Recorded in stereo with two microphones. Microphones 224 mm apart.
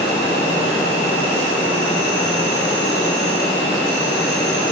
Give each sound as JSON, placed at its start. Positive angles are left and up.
{"t": 0.0, "sound": "an insect", "side_deg": 55, "distance_m": 4.0}